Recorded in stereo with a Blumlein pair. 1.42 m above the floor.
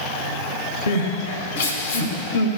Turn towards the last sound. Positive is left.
turn(degrees=65)